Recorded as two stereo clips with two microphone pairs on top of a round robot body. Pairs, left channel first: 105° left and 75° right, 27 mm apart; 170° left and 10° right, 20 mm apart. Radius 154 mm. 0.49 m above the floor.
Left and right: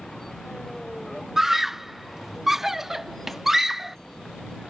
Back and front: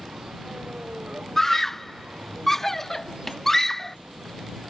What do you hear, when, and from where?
0.0 s a vehicle: 25° left
1.4 s a scream: 135° right